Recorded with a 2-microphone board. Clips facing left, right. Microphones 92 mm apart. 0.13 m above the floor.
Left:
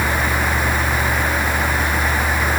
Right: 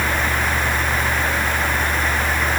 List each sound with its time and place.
Only background noise.